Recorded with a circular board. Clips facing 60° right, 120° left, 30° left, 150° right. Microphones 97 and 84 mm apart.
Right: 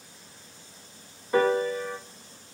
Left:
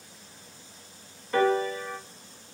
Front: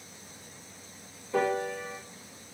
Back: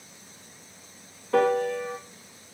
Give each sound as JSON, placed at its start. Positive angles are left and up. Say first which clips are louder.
{"t": 1.3, "sound": "a piano", "louder": "right 1 dB, back 6 dB", "azimuth_deg": -135, "distance_m": 0.8}